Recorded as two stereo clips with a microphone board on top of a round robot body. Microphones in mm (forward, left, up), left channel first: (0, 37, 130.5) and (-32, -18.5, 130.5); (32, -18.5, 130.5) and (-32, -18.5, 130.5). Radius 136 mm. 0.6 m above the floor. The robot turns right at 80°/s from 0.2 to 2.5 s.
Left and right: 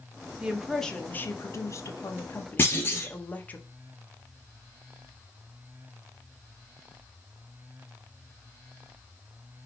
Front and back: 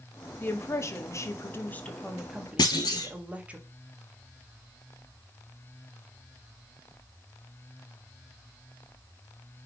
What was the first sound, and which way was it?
A woman speaking, 55° right.